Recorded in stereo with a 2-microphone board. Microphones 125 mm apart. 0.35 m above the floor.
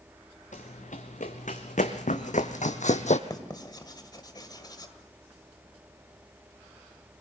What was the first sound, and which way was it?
Running footsteps, 80° left.